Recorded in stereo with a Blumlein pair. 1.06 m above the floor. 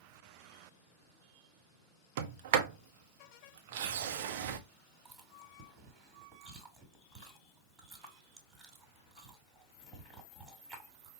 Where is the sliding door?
50° right, 0.6 m.